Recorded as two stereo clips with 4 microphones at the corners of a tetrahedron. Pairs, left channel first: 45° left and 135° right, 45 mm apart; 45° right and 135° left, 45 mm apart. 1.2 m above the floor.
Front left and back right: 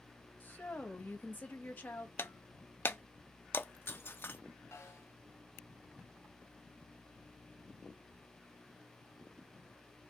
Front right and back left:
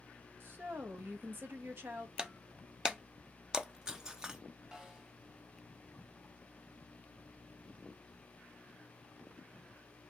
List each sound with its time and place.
0.4 s a woman speaking: 100° left, 1.9 m
2.2 s breaking glass: 60° left, 0.8 m
4.7 s a snare drum: 55° left, 3 m